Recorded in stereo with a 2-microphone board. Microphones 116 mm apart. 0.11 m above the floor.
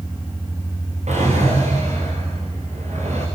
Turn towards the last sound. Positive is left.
turn(degrees=-75)  # may be behind; listen again after turning